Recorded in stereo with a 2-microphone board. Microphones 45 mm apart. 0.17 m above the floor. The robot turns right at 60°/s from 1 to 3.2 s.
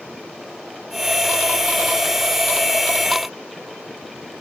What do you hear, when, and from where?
Only background noise.